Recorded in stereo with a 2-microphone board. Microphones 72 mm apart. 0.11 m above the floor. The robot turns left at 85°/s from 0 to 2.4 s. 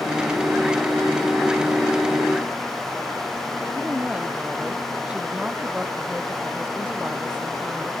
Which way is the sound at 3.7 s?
15° right (ahead or behind).